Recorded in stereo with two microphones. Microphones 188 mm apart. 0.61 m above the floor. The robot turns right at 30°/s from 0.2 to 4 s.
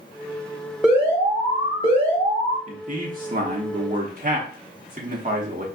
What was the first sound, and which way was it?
An alarm, 175° right.